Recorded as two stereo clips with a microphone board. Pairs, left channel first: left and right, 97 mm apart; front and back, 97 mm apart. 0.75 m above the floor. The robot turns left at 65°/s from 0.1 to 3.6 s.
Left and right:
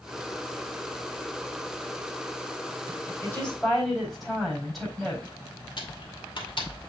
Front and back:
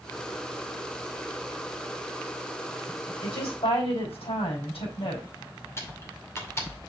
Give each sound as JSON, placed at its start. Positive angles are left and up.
{"t": 3.2, "sound": "a woman speaking", "azimuth_deg": 25, "distance_m": 4.5}
{"t": 5.8, "sound": "typing on a keyboard", "azimuth_deg": 60, "distance_m": 2.0}